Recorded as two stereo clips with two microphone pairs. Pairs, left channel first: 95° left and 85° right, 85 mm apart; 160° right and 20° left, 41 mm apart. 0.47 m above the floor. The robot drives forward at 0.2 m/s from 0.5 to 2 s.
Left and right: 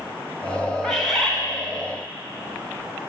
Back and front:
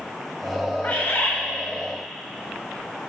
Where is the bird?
Straight behind, 2.0 m.